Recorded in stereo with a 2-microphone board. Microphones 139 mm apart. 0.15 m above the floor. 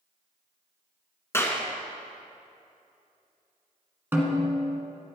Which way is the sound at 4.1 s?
15° right (ahead or behind).